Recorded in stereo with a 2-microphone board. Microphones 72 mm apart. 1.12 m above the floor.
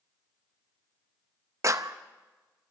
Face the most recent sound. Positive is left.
turn(degrees=-45)  # may be behind; listen again after turning